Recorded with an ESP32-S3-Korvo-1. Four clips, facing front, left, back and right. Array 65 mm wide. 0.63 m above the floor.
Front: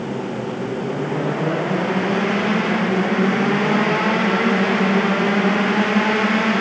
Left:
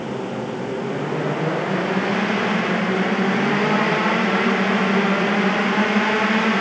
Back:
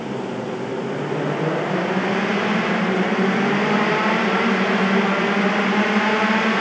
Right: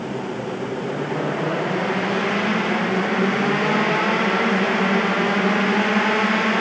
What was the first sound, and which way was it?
Only background noise.